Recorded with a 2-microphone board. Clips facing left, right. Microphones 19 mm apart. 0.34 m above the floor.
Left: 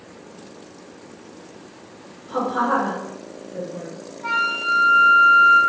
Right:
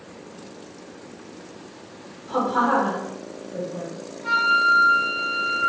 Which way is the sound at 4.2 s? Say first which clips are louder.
Right 3 dB; 55° left (ahead or behind).